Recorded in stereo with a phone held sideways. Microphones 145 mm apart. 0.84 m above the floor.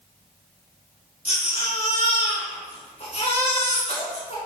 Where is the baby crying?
45° left (ahead or behind), 3.5 m.